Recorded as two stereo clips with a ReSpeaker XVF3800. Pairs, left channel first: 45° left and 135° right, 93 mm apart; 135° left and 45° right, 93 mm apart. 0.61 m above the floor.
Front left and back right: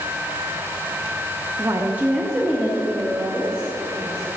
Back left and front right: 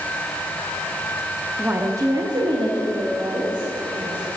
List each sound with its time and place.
1.6 s a woman speaking: 115° right, 0.7 m; by 4.4 s 25° right, 2.5 m